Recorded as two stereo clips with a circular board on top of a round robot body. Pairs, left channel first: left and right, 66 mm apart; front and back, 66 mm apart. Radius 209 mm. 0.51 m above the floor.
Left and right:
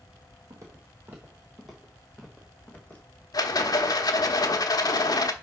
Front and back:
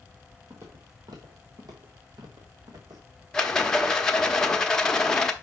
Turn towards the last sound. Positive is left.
turn(degrees=80)